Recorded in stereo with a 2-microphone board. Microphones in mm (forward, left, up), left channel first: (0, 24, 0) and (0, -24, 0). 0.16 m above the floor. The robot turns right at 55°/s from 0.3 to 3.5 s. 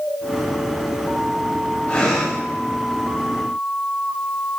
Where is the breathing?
25° left (ahead or behind), 8 m; by 2.4 s centre (ahead or behind), 8 m.